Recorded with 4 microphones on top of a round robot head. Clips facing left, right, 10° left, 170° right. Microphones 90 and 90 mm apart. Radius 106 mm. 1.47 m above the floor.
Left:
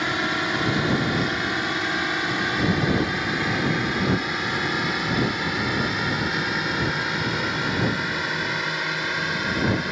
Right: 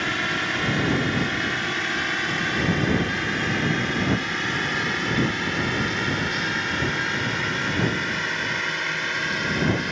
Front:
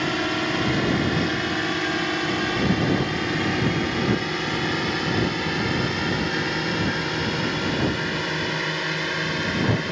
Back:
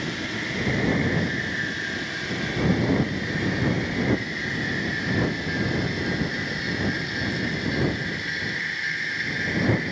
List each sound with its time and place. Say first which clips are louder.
0.0 s a drone: left 2 dB, front 6 dB; 15° left; by 9.9 s 10° left